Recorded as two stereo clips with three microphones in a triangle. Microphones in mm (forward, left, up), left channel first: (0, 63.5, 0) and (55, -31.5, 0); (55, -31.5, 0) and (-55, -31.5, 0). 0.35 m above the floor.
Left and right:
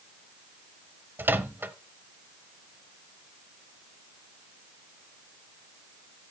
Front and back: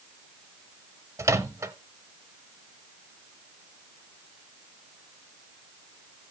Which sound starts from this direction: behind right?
A microwave, at 1.2 s.